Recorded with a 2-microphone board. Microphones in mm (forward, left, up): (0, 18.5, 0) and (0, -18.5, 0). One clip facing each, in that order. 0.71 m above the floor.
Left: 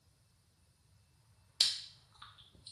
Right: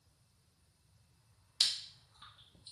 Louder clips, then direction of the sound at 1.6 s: Even; 25° left (ahead or behind).